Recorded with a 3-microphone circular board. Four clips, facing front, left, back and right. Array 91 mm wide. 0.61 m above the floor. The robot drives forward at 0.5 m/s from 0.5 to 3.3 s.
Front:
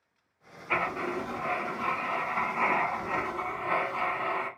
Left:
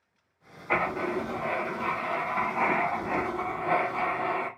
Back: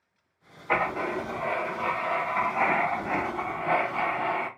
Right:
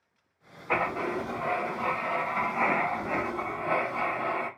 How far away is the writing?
About 2 m.